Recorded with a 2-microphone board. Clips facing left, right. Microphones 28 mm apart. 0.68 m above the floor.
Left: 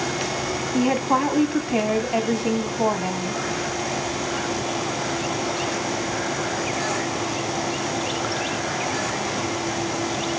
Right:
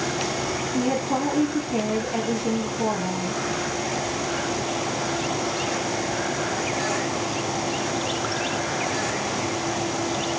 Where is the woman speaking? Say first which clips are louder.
Left 5 dB; 55° left (ahead or behind), 1.9 m.